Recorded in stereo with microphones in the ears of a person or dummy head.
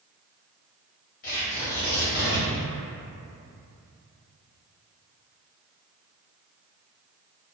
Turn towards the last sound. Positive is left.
turn(degrees=35)  # may be behind; listen again after turning